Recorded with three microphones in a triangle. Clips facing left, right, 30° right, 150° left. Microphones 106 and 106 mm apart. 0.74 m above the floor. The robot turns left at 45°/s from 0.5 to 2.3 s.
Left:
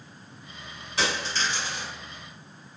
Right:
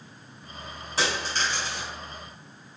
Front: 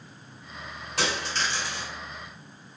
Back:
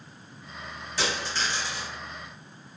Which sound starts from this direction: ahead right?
A dropped coin, at 1.0 s.